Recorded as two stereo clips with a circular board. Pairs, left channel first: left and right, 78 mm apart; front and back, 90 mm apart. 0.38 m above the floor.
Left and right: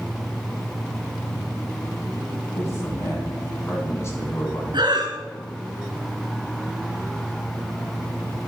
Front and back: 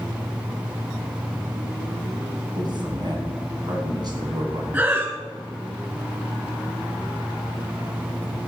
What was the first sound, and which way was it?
A man speaking, 140° left.